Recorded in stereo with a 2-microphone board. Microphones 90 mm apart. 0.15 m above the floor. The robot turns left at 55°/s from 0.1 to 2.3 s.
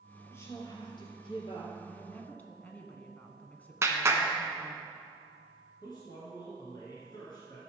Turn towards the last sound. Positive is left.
turn(degrees=50)  # may be behind; listen again after turning